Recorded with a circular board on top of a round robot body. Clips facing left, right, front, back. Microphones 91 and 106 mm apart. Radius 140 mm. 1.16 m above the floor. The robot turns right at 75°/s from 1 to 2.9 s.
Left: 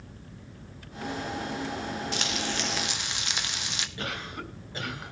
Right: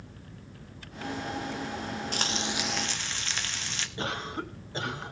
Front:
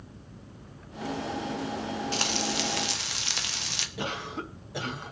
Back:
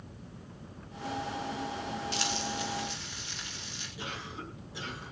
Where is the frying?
45° right, 1.4 m; by 3.9 s 15° left, 1.4 m.